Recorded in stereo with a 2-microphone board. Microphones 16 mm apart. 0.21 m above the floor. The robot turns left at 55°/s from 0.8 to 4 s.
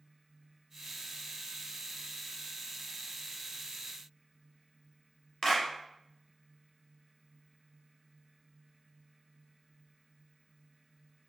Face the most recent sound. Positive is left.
turn(degrees=25)  # may be behind; listen again after turning